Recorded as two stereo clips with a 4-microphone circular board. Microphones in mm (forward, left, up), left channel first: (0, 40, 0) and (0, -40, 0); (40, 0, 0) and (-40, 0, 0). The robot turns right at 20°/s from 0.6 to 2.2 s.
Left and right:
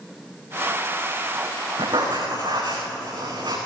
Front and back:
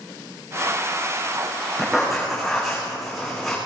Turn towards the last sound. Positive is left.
turn(degrees=-90)